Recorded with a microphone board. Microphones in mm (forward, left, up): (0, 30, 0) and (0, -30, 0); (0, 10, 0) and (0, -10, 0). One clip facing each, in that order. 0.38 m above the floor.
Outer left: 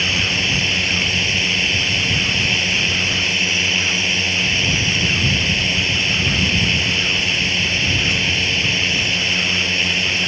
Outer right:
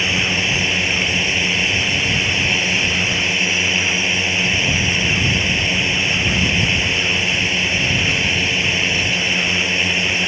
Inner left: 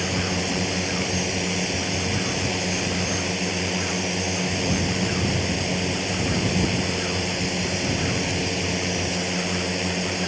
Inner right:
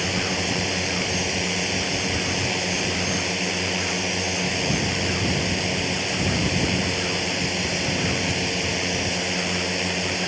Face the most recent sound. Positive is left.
turn(degrees=-10)  # may be behind; listen again after turning